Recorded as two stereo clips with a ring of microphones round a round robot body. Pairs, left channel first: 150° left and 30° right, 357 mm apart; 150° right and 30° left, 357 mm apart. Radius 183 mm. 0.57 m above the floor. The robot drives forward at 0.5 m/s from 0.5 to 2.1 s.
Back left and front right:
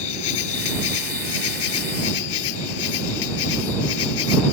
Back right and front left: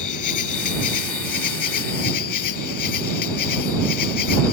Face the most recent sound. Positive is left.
turn(degrees=170)